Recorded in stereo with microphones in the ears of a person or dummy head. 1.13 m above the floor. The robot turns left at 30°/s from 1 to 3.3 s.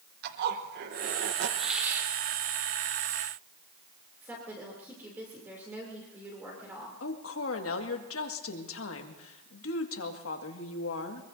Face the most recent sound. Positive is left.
turn(degrees=70)  # may be behind; listen again after turning